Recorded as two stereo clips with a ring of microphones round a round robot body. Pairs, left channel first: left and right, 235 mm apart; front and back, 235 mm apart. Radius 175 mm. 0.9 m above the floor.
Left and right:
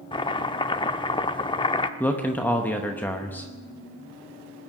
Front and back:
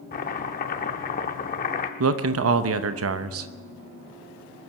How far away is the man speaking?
About 0.8 m.